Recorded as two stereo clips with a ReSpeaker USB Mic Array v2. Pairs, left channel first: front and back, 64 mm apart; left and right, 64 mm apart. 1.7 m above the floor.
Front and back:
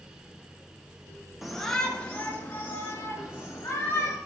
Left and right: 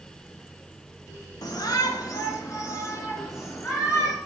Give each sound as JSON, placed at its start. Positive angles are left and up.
{"t": 1.4, "sound": "a shout", "azimuth_deg": 95, "distance_m": 1.4}